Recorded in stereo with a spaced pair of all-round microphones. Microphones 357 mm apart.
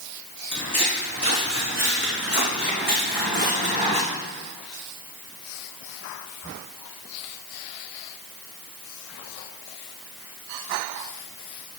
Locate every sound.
0.5 s footsteps: 40° right (ahead or behind), 4 m; by 4.0 s 15° right (ahead or behind), 4.5 m